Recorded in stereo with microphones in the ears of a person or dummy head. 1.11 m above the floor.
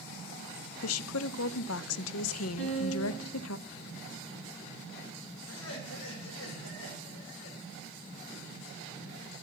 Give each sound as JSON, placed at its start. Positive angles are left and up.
{"t": 0.8, "sound": "a woman speaking", "side_deg": 80, "distance_m": 0.7}
{"t": 2.6, "sound": "a piano", "side_deg": 45, "distance_m": 8.0}
{"t": 5.5, "sound": "laughter", "side_deg": 85, "distance_m": 4.0}